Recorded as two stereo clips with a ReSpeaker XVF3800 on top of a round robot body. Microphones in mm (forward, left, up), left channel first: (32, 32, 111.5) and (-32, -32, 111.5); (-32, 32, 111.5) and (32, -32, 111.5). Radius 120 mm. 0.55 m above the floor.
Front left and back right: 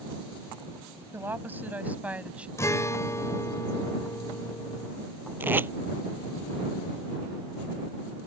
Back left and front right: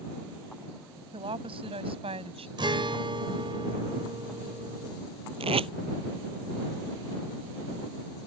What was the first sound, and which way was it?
A woman speaking, 70° right.